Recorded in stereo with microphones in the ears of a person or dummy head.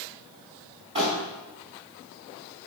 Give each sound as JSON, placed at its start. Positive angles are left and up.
{"t": 0.9, "sound": "crumpling", "side_deg": -30, "distance_m": 3.5}